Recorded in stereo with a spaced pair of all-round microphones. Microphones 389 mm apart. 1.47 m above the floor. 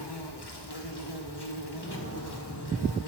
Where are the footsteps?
25° left (ahead or behind), 1.6 m; by 3.0 s 55° left (ahead or behind), 2.5 m.